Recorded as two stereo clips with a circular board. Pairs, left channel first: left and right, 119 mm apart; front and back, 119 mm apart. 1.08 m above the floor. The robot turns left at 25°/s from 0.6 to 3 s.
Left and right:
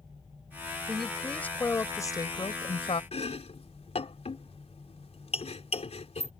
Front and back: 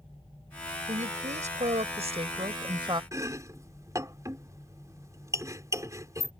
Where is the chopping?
115° left.